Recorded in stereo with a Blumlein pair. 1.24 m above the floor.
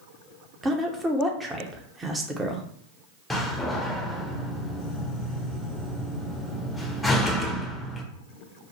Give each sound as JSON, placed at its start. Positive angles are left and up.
{"t": 0.6, "sound": "a woman speaking", "azimuth_deg": -10, "distance_m": 0.8}
{"t": 3.3, "sound": "a door slam", "azimuth_deg": 10, "distance_m": 0.8}